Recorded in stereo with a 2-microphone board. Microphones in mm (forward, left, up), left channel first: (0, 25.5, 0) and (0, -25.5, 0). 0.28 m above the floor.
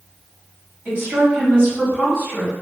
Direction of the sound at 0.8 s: 30° right (ahead or behind).